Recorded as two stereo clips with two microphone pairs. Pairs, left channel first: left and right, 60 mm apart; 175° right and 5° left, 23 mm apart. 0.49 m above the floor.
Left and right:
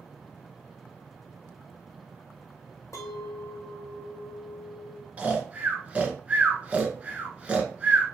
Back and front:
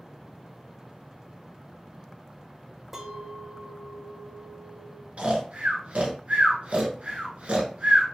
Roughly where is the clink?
Left.